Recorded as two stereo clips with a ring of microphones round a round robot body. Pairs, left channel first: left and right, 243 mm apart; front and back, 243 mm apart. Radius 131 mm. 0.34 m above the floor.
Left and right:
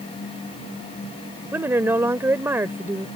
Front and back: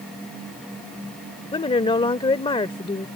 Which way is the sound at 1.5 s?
25° right.